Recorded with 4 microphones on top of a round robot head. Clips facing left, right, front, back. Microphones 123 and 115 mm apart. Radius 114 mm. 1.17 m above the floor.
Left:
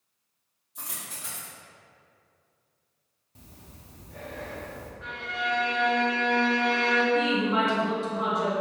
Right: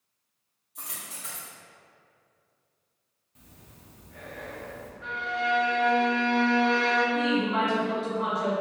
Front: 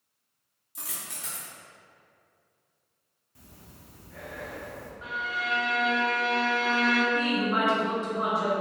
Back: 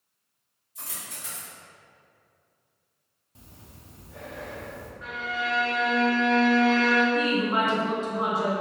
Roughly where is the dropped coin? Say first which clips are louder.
Left 1 dB, even; ahead.